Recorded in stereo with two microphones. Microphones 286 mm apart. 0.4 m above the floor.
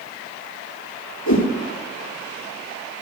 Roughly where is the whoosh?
Left.